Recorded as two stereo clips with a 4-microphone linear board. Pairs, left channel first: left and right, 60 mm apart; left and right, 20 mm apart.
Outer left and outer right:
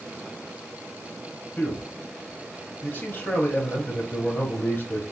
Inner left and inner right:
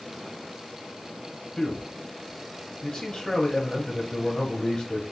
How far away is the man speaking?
About 1.4 m.